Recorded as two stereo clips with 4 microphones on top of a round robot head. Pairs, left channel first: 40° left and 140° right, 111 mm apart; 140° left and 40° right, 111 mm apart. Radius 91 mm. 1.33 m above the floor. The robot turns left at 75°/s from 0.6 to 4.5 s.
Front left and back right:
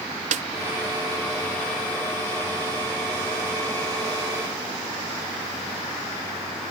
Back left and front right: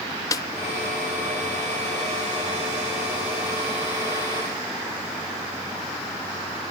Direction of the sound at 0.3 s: 160° right.